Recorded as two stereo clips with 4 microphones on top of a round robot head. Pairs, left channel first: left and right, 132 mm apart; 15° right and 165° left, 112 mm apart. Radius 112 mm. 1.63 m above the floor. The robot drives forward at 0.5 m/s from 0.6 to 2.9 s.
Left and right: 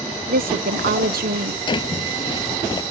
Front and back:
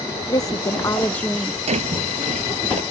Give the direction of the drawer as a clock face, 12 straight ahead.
7 o'clock.